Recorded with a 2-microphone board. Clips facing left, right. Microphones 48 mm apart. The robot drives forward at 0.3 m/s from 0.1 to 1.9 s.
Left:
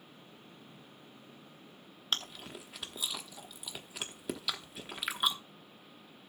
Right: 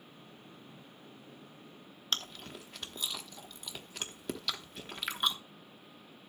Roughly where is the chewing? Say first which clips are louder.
Even; centre.